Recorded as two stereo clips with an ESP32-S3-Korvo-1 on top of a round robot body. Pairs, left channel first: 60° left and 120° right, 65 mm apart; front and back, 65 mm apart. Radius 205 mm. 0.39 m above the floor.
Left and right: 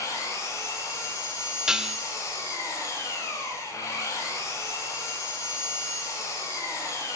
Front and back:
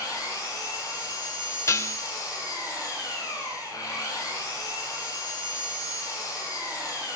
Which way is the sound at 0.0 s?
25° left.